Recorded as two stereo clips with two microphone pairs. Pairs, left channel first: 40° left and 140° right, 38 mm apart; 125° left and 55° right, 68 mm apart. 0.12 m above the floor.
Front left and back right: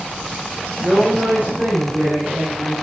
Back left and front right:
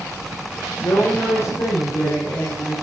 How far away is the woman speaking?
About 9 m.